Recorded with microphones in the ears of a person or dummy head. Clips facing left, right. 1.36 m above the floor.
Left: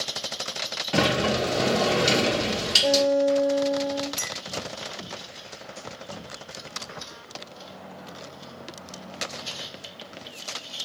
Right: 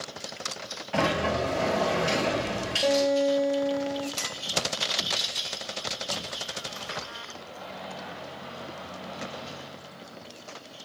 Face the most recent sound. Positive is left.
turn(degrees=20)  # may be behind; listen again after turning